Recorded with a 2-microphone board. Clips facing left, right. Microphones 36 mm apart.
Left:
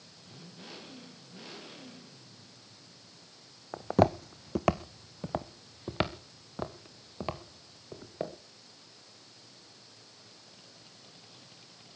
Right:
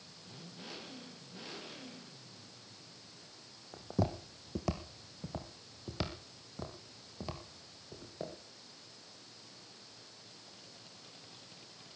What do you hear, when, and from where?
3.7 s footsteps: 65° left (ahead or behind), 0.6 m; by 8.3 s 40° left (ahead or behind), 3 m